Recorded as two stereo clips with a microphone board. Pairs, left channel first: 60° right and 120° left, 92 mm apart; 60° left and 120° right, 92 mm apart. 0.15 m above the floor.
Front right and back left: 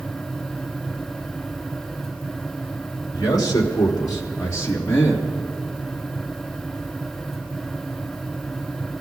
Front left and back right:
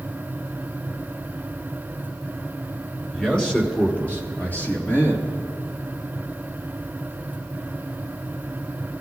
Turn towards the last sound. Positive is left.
turn(degrees=0)